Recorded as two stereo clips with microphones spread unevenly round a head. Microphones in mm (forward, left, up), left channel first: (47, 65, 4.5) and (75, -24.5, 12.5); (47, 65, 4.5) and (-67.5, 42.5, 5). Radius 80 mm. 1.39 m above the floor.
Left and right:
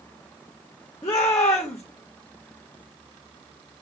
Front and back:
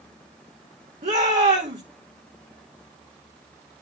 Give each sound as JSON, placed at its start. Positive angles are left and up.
{"t": 1.0, "sound": "a shout", "azimuth_deg": 170, "distance_m": 2.0}